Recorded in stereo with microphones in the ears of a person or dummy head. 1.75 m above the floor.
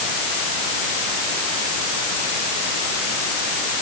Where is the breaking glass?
No breaking glass in this recording.